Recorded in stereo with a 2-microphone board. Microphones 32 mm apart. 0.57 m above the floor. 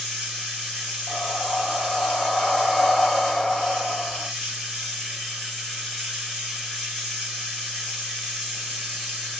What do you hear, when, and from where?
0.0 s running water: centre (ahead or behind), 1.7 m
1.1 s breathing: 20° left (ahead or behind), 0.6 m